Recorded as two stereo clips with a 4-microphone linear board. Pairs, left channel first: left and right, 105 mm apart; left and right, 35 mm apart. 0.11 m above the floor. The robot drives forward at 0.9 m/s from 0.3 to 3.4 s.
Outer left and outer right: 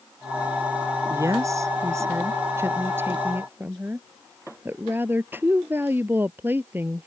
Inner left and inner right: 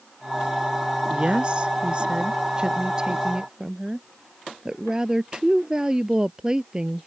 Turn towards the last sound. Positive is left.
turn(degrees=-20)  # may be behind; listen again after turning